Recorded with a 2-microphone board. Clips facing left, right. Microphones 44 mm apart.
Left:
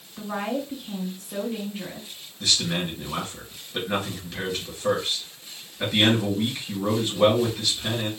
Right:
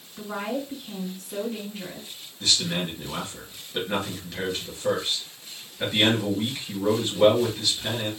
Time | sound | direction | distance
0.2 | a woman speaking | 25° left (ahead or behind) | 3.5 m
2.4 | a man speaking | 10° left (ahead or behind) | 3.5 m